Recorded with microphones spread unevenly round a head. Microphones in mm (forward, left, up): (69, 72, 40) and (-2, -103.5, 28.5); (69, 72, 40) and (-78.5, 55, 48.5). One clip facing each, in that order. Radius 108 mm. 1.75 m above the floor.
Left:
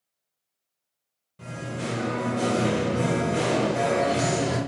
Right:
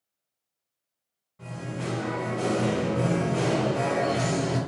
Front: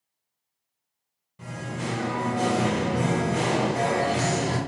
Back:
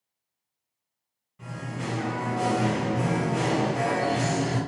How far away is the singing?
About 1.0 m.